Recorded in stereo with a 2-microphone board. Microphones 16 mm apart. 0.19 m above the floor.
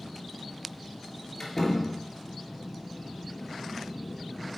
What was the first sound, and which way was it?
A door slam, 5° left (ahead or behind).